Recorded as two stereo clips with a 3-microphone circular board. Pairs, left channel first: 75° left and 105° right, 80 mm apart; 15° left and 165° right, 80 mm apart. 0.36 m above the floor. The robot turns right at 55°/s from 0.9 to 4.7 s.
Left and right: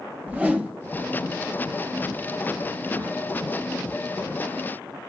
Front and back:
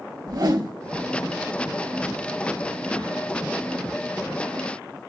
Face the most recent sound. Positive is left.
turn(degrees=35)